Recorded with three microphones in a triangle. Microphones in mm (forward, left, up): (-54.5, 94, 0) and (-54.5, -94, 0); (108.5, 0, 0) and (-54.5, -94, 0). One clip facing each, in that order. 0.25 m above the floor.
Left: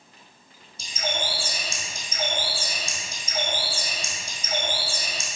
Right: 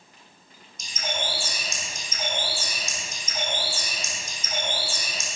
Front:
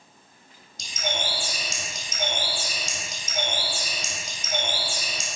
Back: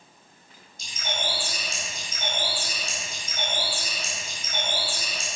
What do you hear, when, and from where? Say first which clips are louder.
0.8 s a bird: left 2 dB, front 2 dB; 30° left, 3 m